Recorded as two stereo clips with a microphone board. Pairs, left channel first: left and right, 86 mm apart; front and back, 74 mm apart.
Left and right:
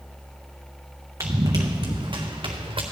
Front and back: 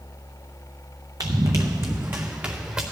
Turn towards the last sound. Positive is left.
turn(degrees=-105)